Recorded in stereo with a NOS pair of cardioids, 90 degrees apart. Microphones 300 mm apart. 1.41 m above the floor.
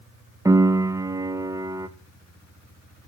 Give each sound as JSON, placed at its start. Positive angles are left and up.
{"t": 0.5, "sound": "a piano", "azimuth_deg": -10, "distance_m": 1.3}